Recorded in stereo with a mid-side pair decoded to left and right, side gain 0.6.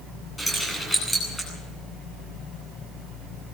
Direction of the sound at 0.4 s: 10° left.